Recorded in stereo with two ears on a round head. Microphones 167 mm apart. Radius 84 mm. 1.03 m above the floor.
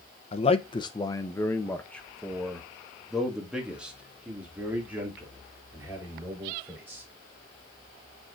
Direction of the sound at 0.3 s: 35° left (ahead or behind).